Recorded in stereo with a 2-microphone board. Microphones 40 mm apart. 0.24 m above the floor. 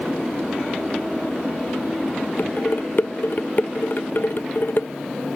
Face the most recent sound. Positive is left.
turn(degrees=55)  # may be behind; listen again after turning